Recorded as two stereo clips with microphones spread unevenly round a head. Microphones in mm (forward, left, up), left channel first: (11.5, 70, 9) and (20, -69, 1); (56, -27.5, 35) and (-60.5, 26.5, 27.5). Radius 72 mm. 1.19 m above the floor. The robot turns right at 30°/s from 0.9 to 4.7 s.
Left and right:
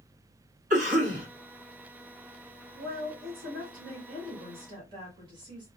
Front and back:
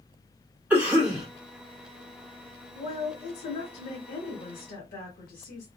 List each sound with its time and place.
0.7 s a cough: 125° right, 2 m; by 1.3 s 115° right, 2 m
2.8 s a woman speaking: 90° right, 1.6 m; by 5.7 s 30° right, 1.6 m